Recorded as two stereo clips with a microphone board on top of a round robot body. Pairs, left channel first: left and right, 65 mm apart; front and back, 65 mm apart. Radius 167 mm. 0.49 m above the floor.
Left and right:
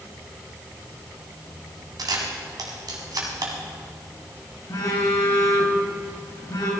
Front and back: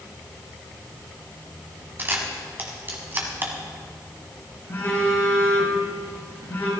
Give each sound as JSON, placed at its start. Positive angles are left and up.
{"t": 2.0, "sound": "a camera shutter", "azimuth_deg": -120, "distance_m": 1.8}
{"t": 4.7, "sound": "a phone buzzing", "azimuth_deg": 55, "distance_m": 3.0}